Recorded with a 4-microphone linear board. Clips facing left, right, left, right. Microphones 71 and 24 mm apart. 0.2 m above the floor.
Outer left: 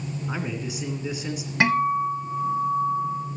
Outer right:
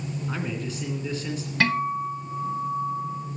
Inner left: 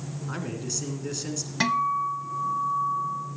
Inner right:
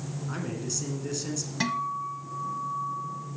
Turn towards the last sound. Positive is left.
turn(degrees=20)  # may be behind; listen again after turning